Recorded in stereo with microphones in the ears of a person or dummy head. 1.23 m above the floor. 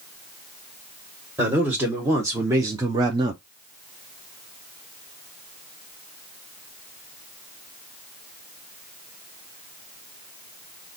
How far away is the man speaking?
About 1.4 m.